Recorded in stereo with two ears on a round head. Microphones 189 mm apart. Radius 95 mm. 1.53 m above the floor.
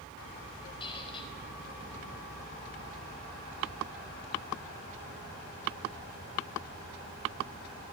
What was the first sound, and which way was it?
A squeak, 25° left (ahead or behind).